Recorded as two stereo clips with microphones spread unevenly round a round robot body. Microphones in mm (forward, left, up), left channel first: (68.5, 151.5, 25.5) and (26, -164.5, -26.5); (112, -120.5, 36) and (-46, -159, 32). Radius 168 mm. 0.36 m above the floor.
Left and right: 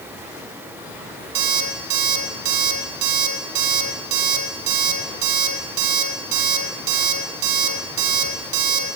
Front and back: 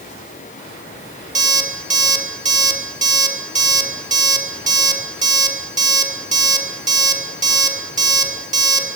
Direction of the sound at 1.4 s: 125° right.